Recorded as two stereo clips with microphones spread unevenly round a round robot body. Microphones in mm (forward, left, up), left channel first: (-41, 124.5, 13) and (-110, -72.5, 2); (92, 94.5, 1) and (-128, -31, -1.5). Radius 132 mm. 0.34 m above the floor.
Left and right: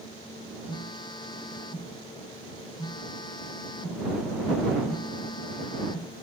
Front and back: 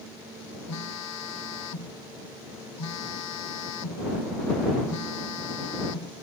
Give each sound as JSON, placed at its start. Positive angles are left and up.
{"t": 0.7, "sound": "a phone buzzing", "azimuth_deg": -5}